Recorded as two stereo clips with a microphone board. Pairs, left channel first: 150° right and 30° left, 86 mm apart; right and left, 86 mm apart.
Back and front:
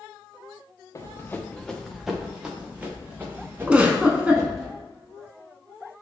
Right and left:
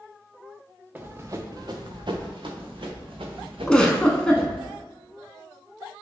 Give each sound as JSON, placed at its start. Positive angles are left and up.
{"t": 0.9, "sound": "running footsteps", "azimuth_deg": 160, "distance_m": 0.6}
{"t": 3.7, "sound": "a giggle", "azimuth_deg": -25, "distance_m": 0.6}